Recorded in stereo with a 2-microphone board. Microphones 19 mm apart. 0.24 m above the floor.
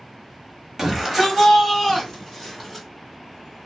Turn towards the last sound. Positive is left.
turn(degrees=-5)  # may be behind; listen again after turning